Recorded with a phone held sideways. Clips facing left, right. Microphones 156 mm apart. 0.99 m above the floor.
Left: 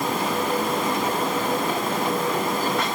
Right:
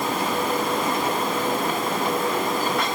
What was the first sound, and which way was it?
Only background noise.